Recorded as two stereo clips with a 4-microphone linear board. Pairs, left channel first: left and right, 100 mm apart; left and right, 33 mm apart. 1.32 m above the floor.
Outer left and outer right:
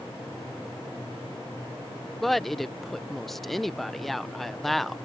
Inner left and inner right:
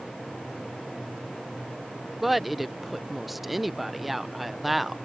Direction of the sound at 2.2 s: Centre (ahead or behind).